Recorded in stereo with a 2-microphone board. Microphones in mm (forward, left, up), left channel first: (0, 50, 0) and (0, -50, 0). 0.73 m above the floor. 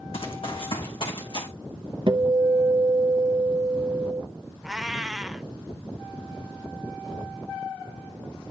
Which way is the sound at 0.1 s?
65° left (ahead or behind).